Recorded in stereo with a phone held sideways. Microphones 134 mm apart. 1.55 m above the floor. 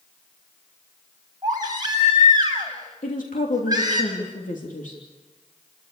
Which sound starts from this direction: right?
A baby crying, at 1.4 s.